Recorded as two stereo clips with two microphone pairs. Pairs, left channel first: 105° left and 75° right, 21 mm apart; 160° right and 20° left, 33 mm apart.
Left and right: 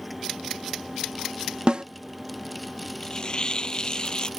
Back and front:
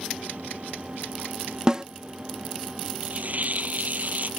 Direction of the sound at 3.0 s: 60° left.